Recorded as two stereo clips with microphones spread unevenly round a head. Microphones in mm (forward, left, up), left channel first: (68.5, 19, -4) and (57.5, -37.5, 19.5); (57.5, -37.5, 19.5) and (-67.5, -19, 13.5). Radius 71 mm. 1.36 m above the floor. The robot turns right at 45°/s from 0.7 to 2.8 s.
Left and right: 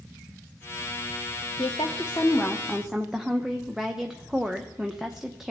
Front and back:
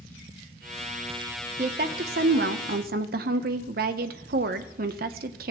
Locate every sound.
1.6 s a woman speaking: 125° left, 0.7 m; by 5.5 s straight behind, 0.7 m